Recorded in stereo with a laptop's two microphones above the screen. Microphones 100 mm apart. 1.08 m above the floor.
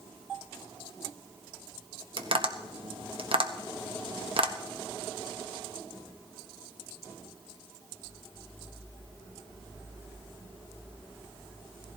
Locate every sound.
2.2 s tapping: 60° right (ahead or behind), 1.1 m